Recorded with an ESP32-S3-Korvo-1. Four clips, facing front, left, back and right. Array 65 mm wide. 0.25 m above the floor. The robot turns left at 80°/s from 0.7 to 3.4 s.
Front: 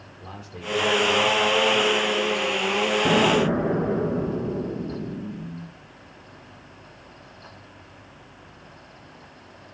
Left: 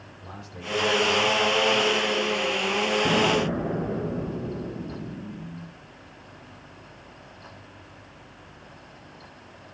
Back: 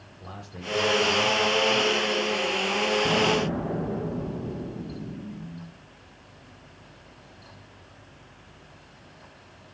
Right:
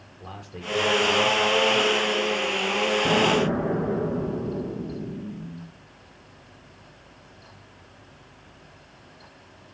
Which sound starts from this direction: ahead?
An explosion, at 3.0 s.